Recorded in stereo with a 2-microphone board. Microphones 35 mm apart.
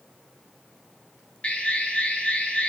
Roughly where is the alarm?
Left.